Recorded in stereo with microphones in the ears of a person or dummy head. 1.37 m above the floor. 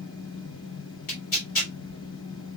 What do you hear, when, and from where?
0.0 s a fan: 65° left (ahead or behind), 1.8 m
1.1 s tearing paper: 50° left (ahead or behind), 4 m